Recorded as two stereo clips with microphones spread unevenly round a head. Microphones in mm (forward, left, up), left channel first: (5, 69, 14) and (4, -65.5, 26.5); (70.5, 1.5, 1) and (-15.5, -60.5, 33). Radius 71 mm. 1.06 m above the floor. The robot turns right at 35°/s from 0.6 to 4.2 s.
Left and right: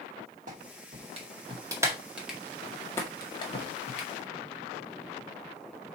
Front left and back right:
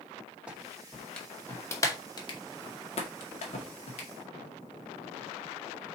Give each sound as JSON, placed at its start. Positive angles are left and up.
{"t": 0.5, "sound": "a clap", "azimuth_deg": -65, "distance_m": 2.0}